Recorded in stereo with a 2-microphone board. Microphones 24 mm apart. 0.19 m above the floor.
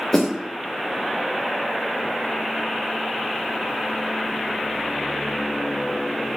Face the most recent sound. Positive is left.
turn(degrees=25)  # may be behind; listen again after turning